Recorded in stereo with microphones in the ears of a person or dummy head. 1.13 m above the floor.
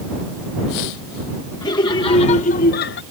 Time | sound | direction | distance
1.6 | laughter | 15° left (ahead or behind) | ?